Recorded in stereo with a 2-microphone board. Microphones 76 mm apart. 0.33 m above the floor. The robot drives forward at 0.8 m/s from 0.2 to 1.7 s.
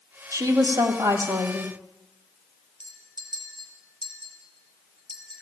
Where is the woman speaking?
50° right (ahead or behind), 2 m; by 1.7 s 40° right (ahead or behind), 2.5 m.